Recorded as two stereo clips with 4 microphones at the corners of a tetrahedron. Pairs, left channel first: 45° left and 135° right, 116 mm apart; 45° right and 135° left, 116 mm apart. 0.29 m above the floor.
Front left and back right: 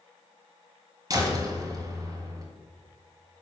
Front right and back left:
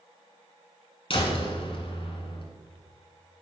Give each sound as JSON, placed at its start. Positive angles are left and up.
{"t": 1.1, "sound": "a door slam", "azimuth_deg": -80, "distance_m": 1.9}